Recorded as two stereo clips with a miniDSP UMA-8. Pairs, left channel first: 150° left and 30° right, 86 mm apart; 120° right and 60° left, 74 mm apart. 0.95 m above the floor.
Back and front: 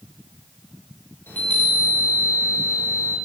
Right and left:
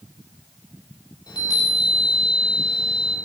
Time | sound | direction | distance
1.3 | a chime | 145° right | 3.5 m